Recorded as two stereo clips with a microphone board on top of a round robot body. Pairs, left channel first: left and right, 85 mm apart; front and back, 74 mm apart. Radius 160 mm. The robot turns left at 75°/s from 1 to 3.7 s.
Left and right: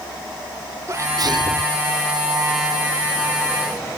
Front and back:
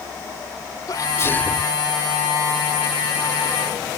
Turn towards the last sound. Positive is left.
turn(degrees=120)